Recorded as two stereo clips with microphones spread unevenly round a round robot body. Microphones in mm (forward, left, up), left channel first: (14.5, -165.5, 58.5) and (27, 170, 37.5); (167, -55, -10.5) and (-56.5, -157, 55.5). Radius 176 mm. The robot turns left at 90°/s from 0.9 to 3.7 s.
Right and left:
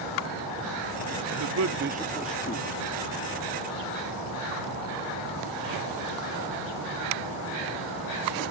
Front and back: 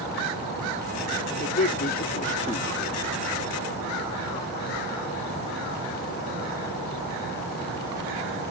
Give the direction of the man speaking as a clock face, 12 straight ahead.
9 o'clock.